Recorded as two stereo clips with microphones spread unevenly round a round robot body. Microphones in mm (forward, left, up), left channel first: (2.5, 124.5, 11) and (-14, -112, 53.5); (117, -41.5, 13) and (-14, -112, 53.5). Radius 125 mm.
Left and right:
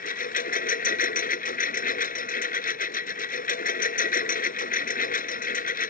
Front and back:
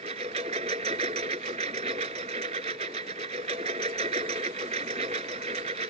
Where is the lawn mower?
145° left.